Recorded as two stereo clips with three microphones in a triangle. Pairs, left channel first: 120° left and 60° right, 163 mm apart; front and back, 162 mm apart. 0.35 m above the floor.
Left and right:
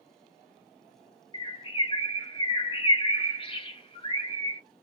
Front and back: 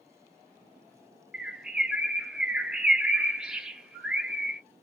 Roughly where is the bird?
Left.